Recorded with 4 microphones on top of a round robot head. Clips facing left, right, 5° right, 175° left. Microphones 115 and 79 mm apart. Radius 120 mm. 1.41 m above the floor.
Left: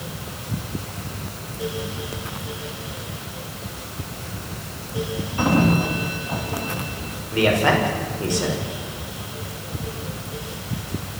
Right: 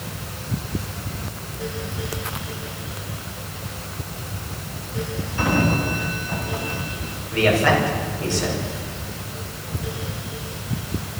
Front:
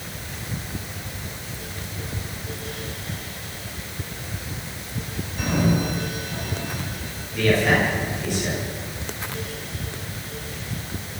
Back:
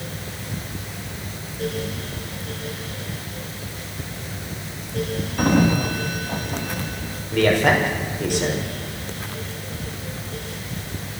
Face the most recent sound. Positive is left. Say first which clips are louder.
# even, back 2 dB
turn(degrees=160)